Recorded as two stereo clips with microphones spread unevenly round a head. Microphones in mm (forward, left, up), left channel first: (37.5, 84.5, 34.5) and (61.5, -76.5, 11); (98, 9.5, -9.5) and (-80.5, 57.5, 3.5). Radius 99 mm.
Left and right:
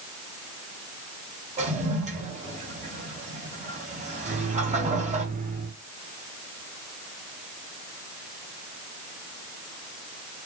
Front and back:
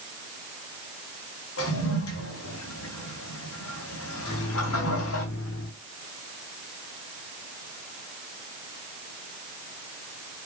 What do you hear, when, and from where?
1.6 s a toilet flushing: 35° right, 3.5 m
4.2 s a microwave: 40° right, 2.5 m